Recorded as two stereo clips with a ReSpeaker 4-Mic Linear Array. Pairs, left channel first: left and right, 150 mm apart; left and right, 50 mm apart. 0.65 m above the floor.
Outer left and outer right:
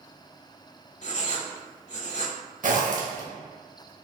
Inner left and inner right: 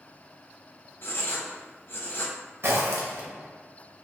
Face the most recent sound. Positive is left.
turn(degrees=-65)  # may be behind; listen again after turning